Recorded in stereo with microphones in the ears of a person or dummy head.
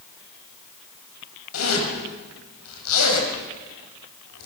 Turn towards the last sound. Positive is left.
turn(degrees=85)